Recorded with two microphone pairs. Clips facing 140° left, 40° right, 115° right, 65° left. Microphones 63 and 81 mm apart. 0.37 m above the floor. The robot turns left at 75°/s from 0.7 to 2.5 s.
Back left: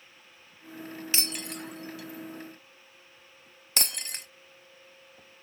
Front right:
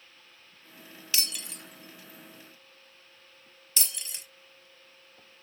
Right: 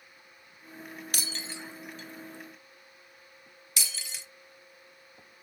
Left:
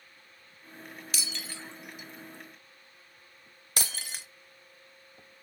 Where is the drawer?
I don't hear a drawer.